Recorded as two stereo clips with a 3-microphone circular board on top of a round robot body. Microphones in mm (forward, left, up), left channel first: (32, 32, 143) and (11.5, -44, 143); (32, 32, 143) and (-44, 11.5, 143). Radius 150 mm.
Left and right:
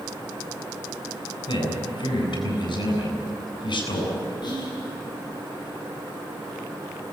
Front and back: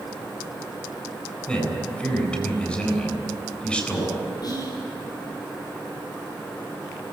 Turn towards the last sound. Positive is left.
turn(degrees=50)